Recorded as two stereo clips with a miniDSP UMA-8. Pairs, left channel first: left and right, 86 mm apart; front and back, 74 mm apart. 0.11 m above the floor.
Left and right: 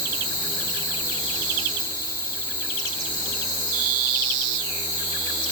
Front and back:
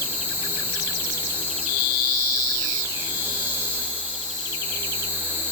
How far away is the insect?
About 7.5 m.